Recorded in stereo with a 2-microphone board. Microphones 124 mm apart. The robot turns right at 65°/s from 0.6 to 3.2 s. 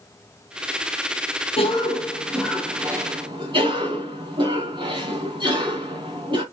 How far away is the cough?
About 3 m.